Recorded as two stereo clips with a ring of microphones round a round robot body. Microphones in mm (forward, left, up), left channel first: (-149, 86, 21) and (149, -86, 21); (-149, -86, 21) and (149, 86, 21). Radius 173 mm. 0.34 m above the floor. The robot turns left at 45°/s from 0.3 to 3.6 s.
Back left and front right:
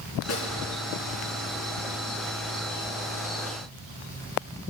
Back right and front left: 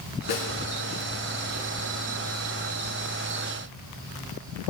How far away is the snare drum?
About 3.5 m.